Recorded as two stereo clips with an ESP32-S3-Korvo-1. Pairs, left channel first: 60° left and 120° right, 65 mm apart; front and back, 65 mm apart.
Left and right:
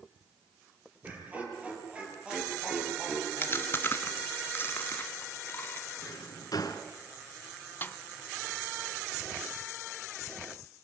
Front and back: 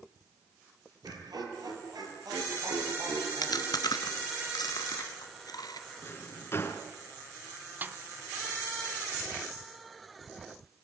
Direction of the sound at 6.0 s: 50° left.